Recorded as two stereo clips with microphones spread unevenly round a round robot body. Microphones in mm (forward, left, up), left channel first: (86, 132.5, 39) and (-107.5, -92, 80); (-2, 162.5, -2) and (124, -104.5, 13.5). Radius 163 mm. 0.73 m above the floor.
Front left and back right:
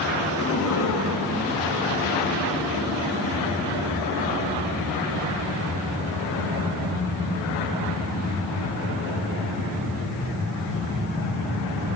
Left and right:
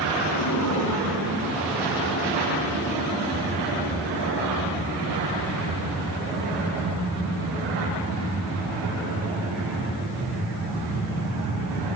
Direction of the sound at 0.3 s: 90° left.